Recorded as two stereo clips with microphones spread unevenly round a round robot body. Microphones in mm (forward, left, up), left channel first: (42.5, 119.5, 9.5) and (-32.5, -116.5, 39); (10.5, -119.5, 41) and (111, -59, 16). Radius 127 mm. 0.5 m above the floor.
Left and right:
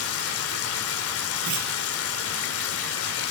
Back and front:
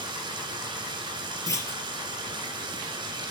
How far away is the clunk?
About 4 m.